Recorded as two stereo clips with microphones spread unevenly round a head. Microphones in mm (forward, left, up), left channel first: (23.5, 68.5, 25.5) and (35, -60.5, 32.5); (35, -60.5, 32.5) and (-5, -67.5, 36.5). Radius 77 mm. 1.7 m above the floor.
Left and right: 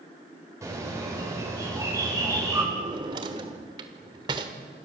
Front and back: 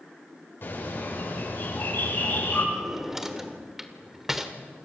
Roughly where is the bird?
Ahead.